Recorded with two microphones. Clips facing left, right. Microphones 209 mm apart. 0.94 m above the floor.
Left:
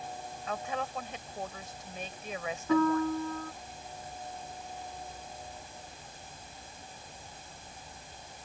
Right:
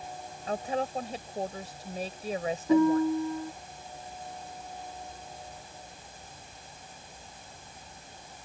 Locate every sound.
0.5 s a woman speaking: 35° right (ahead or behind)
2.7 s a piano: 15° right (ahead or behind)